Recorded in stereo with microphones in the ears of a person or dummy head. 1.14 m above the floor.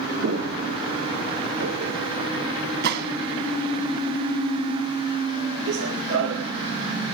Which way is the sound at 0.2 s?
75° right (ahead or behind).